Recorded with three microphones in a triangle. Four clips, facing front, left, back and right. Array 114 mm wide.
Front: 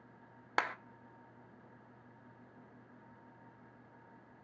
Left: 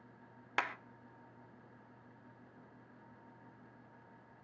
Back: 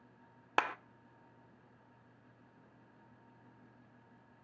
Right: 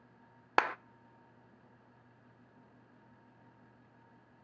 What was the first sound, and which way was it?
A clap, 110° right.